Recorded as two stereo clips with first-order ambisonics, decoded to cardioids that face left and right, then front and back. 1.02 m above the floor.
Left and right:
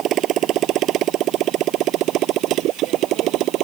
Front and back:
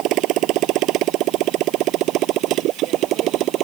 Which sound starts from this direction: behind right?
A motorcycle, at 0.0 s.